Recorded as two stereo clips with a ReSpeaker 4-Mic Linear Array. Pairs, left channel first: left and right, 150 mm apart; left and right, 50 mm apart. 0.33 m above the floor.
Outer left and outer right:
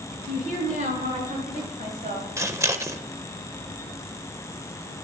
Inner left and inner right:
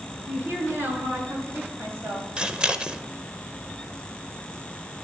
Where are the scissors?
20° right (ahead or behind), 0.7 m.